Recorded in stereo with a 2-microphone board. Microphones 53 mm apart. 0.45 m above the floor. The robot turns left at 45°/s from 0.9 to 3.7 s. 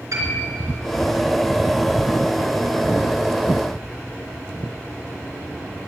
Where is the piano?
70° right (ahead or behind), 3.5 m.